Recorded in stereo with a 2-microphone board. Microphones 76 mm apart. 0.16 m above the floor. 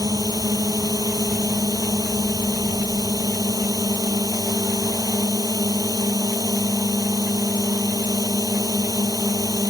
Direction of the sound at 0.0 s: 65° right (ahead or behind).